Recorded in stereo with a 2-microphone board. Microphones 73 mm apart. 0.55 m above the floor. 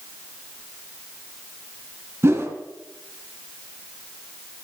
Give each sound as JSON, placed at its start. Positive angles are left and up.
{"t": 2.2, "sound": "a whoosh", "side_deg": -35, "distance_m": 2.0}